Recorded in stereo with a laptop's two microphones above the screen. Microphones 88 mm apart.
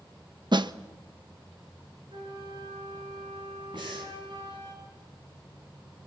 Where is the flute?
75° right (ahead or behind), 7.5 m.